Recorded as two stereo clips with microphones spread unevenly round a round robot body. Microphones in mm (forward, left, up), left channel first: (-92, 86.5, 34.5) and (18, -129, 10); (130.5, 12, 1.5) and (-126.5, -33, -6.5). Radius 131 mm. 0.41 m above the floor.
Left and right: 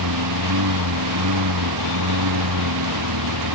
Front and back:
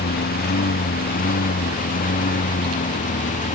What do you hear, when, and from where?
0.0 s a lawn mower: 50° right; by 3.6 s 55° right